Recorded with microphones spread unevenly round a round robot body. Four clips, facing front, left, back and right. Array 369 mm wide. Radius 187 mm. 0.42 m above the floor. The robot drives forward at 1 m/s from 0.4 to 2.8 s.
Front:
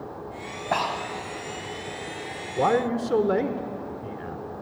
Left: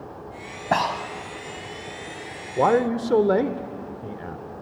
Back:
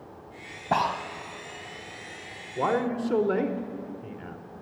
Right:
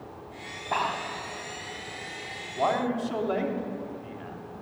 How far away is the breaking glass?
I don't hear breaking glass.